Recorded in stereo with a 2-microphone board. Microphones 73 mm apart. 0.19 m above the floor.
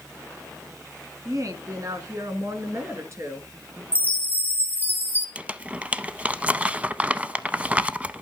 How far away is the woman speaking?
About 1.8 m.